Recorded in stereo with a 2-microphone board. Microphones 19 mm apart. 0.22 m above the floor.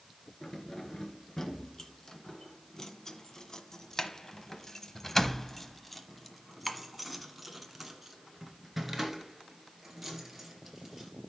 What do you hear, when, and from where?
0.4 s keys jangling: 30° left (ahead or behind), 2.5 m; by 11.1 s 15° right (ahead or behind), 3.5 m